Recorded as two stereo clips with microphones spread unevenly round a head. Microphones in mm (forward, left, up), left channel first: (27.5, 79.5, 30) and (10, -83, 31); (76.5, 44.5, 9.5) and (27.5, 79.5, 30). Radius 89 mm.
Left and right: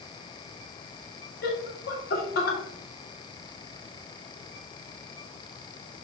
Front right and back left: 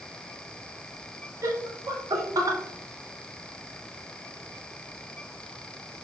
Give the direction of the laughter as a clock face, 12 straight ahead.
8 o'clock.